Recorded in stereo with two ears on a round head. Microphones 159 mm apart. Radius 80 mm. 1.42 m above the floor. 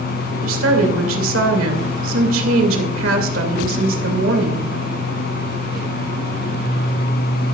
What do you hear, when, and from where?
0.4 s a woman speaking: 80° right, 2.5 m